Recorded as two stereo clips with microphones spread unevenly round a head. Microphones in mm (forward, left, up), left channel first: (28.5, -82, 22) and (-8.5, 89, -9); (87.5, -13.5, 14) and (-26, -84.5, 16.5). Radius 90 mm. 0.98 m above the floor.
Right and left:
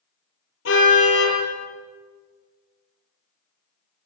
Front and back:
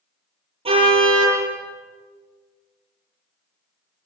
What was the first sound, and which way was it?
A car horn, 100° right.